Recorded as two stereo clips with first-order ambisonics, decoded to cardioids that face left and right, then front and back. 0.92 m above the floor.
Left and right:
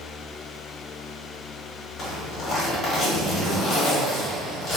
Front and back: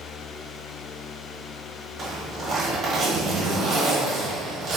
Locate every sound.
2.0 s a zipper: 130° left, 1.0 m